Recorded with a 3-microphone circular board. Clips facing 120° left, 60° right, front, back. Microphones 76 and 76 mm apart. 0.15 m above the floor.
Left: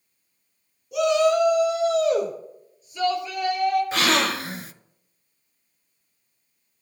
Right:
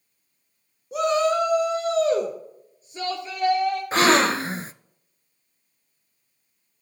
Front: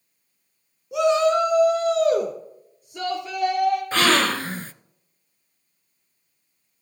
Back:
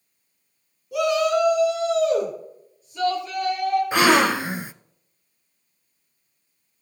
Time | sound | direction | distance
0.9 | a shout | 55° right | 1.9 m
3.9 | a gasp | 110° right | 0.5 m